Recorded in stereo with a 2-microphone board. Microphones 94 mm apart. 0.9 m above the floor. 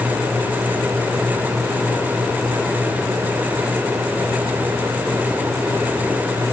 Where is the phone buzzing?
No phone buzzing in this recording.